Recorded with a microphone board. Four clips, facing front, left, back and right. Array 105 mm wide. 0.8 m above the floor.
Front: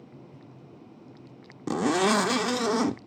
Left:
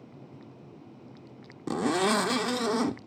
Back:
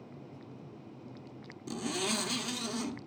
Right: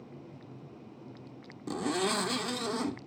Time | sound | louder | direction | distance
1.7 | a zipper | left 5 dB, front 12 dB | 25° left | 0.6 m